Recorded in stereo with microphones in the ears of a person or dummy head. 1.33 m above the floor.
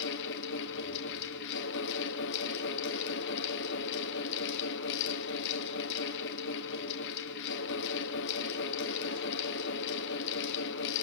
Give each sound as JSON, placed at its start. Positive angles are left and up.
{"t": 0.0, "sound": "a fan", "side_deg": 65, "distance_m": 1.5}